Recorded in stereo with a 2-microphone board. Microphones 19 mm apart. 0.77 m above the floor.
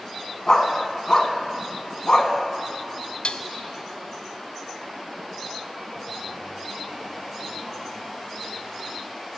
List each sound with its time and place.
0.5 s a dog barking: 40° left (ahead or behind), 1.4 m
3.2 s dishes clattering: 65° left (ahead or behind), 0.7 m